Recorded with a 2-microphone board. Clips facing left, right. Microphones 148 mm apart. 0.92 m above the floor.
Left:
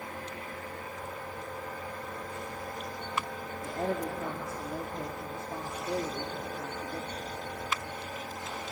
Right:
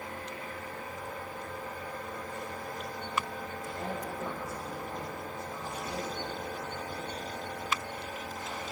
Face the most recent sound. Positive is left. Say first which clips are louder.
# left 7 dB
turn(degrees=65)  # may be behind; listen again after turning